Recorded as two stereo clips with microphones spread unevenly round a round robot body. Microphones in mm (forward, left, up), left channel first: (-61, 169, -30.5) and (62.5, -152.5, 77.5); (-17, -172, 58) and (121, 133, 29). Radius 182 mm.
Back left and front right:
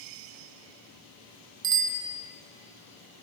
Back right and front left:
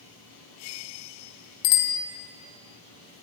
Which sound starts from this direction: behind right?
A bicycle bell, at 1.6 s.